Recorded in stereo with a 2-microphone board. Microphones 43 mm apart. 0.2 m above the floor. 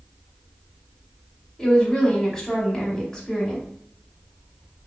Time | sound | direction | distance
1.6 | a woman speaking | 15° left (ahead or behind) | 1.0 m